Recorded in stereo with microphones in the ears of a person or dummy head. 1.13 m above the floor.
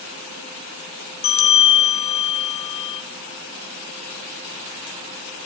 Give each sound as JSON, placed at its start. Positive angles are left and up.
{"t": 1.2, "sound": "a bell", "side_deg": 30, "distance_m": 6.0}